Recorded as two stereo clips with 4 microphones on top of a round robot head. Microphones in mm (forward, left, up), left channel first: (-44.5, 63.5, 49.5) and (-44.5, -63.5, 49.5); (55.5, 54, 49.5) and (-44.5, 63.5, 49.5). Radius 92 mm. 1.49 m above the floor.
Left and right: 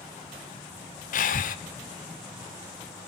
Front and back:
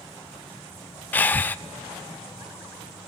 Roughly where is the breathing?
Left.